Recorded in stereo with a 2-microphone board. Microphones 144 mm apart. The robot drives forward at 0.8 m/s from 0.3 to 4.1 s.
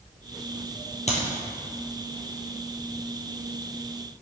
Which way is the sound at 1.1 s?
50° left (ahead or behind).